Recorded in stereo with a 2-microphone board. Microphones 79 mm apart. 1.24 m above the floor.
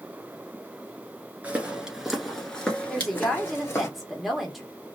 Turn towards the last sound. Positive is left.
turn(degrees=0)  # may be behind; listen again after turning